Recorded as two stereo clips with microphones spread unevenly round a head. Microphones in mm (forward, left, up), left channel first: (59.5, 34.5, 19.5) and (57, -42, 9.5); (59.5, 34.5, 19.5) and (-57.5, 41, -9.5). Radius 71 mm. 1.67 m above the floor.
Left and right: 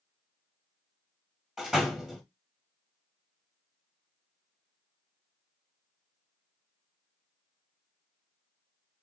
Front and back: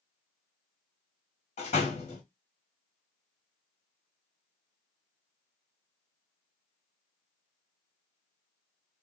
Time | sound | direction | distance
1.6 | a door slam | 5° right | 1.7 m